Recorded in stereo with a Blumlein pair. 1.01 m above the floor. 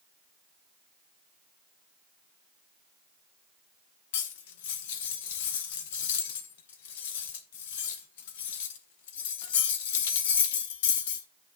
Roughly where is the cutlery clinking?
Ahead left.